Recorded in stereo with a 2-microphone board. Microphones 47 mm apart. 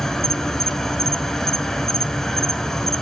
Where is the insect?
10° left (ahead or behind), 1.0 m.